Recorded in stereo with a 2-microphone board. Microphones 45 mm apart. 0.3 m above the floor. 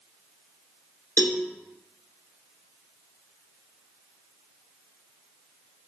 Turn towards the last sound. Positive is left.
turn(degrees=55)  # may be behind; listen again after turning